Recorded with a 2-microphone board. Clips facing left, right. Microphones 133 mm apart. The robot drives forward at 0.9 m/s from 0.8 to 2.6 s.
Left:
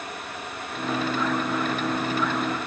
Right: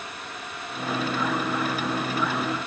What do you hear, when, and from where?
Only background noise.